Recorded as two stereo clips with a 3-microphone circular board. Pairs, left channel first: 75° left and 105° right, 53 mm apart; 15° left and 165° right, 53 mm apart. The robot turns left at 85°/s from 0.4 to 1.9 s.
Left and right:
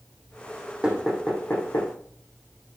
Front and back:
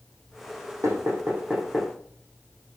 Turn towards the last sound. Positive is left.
turn(degrees=95)